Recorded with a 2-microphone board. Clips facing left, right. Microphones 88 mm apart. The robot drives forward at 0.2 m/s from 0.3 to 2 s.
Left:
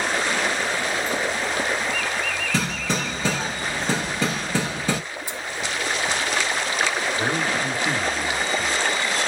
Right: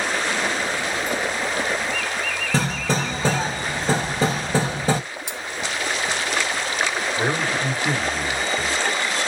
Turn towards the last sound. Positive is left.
turn(degrees=-30)  # may be behind; listen again after turning